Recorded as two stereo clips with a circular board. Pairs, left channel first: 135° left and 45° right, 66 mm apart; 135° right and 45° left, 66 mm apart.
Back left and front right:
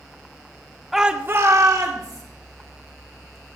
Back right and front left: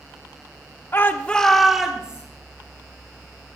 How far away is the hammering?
I don't hear hammering.